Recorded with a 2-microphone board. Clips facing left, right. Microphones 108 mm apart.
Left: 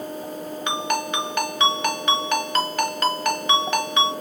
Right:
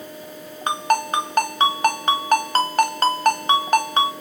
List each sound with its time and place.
0.7 s a ringtone: 40° right (ahead or behind), 0.9 m